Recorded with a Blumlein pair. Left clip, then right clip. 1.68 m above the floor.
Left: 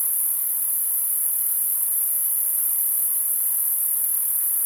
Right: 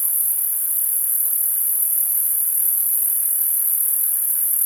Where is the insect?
65° right, 1.4 m.